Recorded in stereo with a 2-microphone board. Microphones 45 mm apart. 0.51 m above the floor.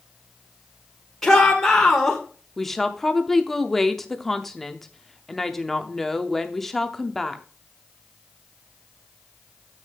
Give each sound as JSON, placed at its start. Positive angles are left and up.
{"t": 1.2, "sound": "a shout", "side_deg": 10, "distance_m": 1.8}
{"t": 2.6, "sound": "a woman speaking", "side_deg": 5, "distance_m": 0.8}